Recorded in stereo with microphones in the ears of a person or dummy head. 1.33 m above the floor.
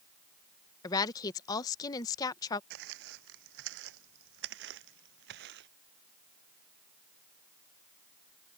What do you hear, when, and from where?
0.8 s a woman speaking: 20° left (ahead or behind)
2.7 s footsteps: 65° right (ahead or behind)